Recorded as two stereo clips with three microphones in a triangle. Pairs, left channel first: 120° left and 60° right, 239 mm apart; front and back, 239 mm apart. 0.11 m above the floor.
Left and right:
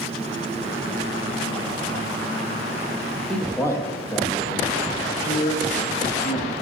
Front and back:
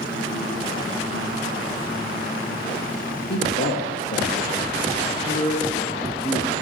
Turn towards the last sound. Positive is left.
turn(degrees=70)